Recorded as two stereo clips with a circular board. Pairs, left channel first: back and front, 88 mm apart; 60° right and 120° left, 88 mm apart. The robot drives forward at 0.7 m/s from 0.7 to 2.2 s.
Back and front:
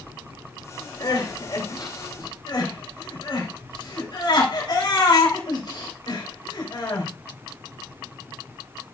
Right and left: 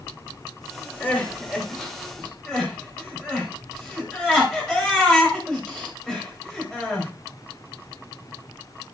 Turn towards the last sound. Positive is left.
turn(degrees=-145)